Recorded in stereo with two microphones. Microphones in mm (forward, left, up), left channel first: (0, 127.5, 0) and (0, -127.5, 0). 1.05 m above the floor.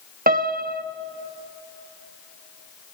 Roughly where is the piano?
Right.